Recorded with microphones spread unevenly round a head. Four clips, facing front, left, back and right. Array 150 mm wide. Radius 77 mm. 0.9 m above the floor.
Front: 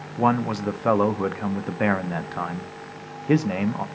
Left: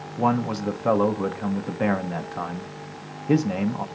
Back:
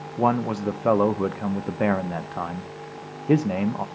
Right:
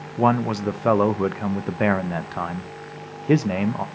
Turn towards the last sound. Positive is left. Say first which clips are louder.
# right 3 dB, front 1 dB
turn(degrees=-130)